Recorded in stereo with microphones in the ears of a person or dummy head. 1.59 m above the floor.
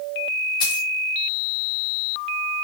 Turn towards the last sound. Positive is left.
turn(degrees=30)  # may be behind; listen again after turning